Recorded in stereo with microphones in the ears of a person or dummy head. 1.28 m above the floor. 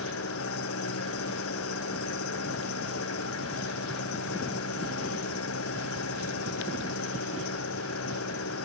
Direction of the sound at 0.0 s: 90° left.